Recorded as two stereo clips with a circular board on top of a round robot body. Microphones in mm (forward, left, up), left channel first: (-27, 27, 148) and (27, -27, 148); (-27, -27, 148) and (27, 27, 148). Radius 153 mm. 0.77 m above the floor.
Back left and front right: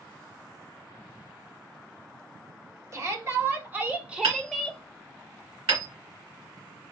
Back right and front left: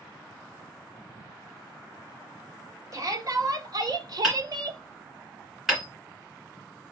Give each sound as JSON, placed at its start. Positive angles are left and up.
{"t": 2.9, "sound": "a shout", "azimuth_deg": 5, "distance_m": 1.9}
{"t": 4.2, "sound": "hammering", "azimuth_deg": -40, "distance_m": 2.5}